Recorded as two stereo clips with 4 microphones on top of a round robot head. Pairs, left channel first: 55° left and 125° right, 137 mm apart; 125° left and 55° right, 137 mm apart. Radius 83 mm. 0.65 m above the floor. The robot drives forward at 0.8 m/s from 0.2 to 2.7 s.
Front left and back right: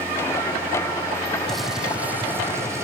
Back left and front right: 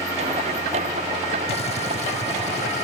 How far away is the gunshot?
About 0.9 m.